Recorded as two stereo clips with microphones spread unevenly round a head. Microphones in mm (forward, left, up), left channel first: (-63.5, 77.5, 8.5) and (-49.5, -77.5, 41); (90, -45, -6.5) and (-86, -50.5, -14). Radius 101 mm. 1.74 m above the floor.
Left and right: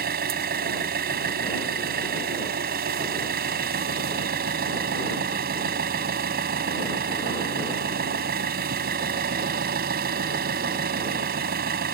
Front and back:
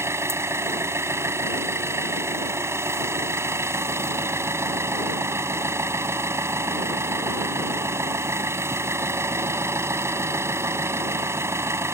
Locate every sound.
0.0 s an engine running: 105° right